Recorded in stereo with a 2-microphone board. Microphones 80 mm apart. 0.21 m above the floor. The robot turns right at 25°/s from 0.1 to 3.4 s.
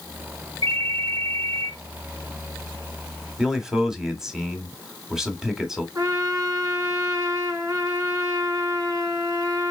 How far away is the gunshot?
No gunshot in this recording.